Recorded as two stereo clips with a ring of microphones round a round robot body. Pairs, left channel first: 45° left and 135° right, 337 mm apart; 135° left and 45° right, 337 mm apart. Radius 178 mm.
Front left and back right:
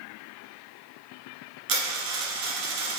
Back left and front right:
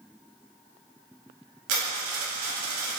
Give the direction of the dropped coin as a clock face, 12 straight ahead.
3 o'clock.